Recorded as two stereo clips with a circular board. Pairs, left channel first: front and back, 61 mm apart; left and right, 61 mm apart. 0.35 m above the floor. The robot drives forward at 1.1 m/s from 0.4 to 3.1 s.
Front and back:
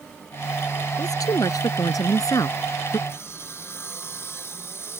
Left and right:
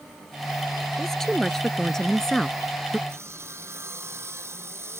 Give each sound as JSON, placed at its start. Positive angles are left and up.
{"t": 1.0, "sound": "a woman speaking", "azimuth_deg": 5}
{"t": 3.1, "sound": "sawing", "azimuth_deg": -45}